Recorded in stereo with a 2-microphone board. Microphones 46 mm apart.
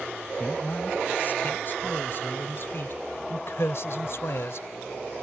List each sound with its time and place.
0.4 s a man speaking: 40° left (ahead or behind); by 4.7 s 70° left (ahead or behind)